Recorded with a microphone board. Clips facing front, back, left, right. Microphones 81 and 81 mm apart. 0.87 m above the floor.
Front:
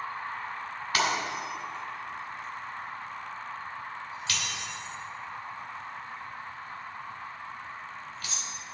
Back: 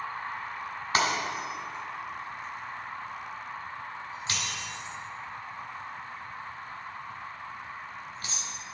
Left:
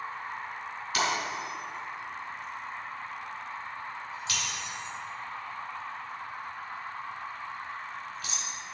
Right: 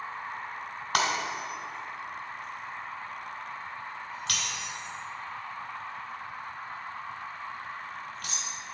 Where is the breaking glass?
115° right, 2.5 m.